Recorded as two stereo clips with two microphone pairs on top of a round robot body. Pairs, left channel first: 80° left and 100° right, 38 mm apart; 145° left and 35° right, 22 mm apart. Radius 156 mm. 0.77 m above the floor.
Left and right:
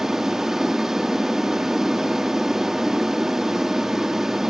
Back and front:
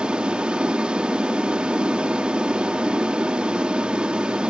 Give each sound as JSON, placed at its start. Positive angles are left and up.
{"t": 0.0, "sound": "an aircraft", "azimuth_deg": -25}